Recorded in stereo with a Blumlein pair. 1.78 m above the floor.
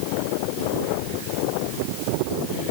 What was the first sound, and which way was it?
Only background noise.